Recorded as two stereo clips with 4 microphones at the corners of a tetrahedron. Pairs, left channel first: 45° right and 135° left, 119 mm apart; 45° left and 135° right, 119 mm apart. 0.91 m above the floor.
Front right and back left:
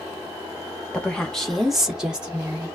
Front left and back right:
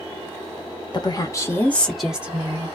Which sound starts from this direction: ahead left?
A woman speaking, at 0.9 s.